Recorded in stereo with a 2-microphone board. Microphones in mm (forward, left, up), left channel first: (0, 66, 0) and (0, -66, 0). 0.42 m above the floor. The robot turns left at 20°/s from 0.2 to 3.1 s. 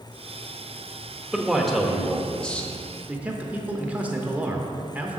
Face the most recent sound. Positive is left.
turn(degrees=-10)  # may be behind; listen again after turning